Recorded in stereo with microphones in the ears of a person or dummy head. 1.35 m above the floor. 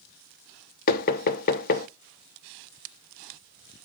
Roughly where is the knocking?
Left.